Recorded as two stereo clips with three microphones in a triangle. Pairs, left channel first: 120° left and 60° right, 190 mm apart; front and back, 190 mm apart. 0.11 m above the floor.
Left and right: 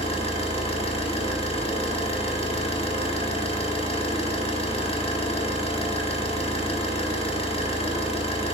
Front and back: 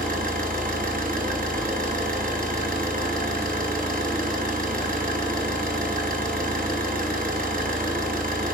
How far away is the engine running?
About 1.0 m.